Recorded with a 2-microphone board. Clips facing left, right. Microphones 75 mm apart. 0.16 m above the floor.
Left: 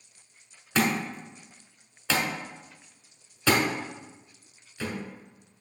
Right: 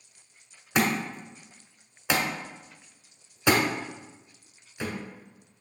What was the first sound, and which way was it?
A thud, 15° right (ahead or behind).